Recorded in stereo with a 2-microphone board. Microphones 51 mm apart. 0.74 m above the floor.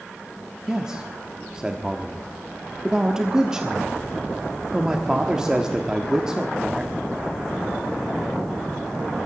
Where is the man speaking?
15° right (ahead or behind), 1.2 m.